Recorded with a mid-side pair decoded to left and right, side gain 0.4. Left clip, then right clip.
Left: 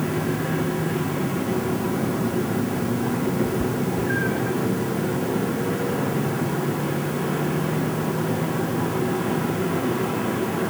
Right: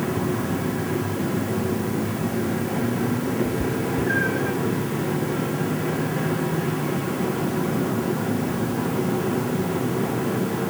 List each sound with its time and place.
3.4 s a cat meowing: 15° right; by 4.6 s 35° right